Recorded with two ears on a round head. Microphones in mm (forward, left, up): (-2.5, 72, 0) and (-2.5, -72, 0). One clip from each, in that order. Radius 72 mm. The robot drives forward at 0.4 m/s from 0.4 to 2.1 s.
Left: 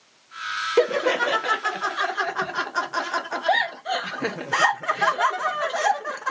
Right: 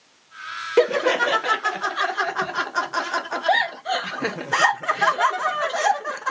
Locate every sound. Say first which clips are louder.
0.8 s laughter: right 3 dB; 10° right (ahead or behind); by 6.3 s 5° right (ahead or behind)